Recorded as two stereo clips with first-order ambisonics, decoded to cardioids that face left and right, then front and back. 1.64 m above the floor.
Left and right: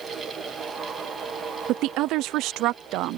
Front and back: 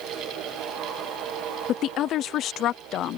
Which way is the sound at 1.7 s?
50° right.